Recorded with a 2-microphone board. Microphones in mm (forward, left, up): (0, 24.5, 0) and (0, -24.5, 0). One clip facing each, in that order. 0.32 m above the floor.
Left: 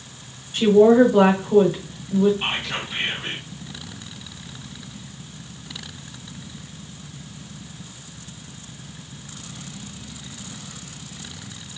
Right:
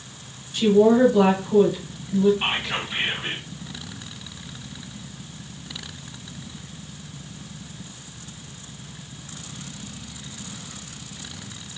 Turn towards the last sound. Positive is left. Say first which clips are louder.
# right 1 dB
turn(degrees=-15)  # may be behind; listen again after turning